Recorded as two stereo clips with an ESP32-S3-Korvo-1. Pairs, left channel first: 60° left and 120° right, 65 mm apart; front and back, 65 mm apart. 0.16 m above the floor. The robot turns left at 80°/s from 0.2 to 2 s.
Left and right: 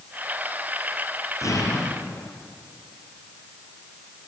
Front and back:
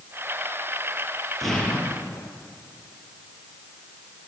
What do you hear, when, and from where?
1.4 s an explosion: 90° left, 3.5 m; by 2.3 s 40° left, 3.5 m